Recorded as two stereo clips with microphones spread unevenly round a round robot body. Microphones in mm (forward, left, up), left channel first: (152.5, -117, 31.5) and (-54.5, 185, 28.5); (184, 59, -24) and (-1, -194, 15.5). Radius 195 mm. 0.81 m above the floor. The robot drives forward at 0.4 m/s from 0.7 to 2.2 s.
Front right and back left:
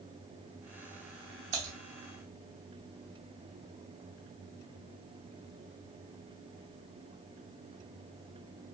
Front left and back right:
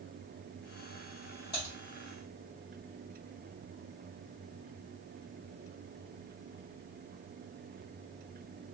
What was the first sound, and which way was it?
Typing on a keyboard, 135° left.